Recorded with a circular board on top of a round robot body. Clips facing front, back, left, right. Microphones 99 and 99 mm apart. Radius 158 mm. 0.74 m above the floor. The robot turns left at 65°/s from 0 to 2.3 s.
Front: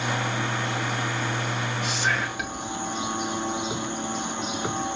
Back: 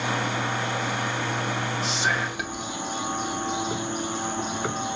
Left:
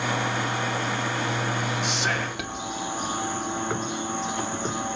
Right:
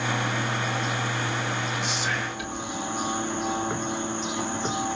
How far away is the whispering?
About 2.5 m.